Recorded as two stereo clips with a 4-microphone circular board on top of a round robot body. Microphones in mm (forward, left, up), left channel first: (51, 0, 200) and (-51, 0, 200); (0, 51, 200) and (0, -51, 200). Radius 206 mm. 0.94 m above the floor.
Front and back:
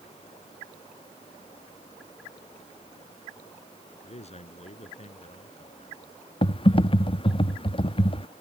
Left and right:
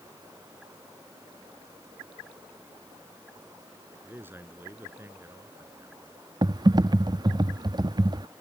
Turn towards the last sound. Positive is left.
turn(degrees=-40)